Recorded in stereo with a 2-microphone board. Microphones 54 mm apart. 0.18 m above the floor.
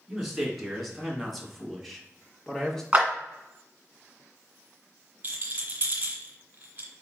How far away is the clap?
About 1.8 m.